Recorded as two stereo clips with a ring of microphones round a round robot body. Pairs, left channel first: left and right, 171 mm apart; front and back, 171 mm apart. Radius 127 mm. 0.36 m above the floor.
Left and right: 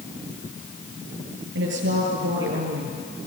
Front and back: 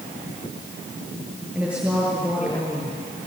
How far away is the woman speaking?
About 8.5 m.